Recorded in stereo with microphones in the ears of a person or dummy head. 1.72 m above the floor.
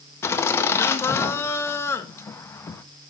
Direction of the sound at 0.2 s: 15° left (ahead or behind).